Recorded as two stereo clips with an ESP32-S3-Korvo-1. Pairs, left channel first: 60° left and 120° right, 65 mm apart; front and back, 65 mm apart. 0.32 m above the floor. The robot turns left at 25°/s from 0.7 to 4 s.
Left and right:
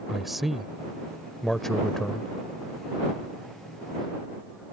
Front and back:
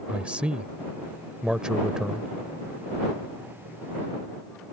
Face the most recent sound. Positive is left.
turn(degrees=70)